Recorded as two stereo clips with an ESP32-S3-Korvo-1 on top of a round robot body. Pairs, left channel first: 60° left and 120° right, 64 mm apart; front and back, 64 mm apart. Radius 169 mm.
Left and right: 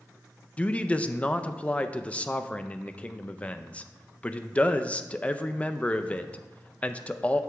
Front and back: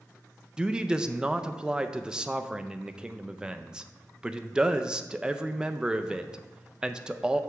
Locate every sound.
0.6 s a man speaking: 115° left, 0.5 m